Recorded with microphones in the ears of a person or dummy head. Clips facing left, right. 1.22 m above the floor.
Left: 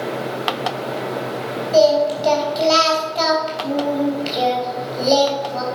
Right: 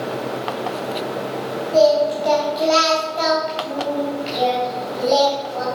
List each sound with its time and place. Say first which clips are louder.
1.7 s singing: left 1 dB; 50° left (ahead or behind), 3.5 m